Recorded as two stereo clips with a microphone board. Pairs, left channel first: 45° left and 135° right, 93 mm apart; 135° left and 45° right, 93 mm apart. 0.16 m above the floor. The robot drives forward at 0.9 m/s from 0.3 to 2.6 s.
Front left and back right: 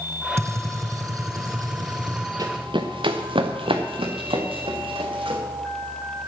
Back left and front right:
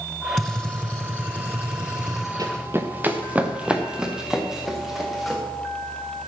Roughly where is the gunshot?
Behind right.